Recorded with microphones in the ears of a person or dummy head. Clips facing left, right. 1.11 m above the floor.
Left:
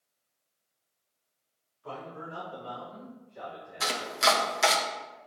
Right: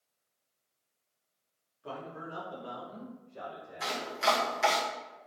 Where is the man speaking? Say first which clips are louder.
Left 1 dB; 25° right (ahead or behind), 2.5 m; by 4.1 s 65° right (ahead or behind), 4.5 m.